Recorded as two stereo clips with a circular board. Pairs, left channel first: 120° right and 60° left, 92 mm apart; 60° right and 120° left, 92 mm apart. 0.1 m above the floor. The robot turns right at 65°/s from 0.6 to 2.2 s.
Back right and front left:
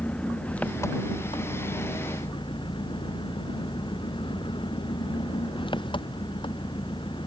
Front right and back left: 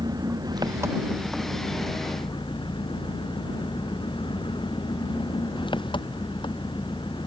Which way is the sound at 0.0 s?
165° left.